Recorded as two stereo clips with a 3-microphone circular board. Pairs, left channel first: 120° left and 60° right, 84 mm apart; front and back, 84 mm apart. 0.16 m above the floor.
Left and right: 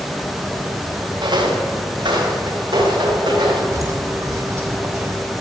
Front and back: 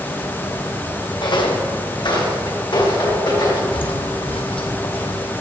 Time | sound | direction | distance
1.2 | footsteps | 30° right | 3 m
3.7 | footsteps | 10° right | 1.3 m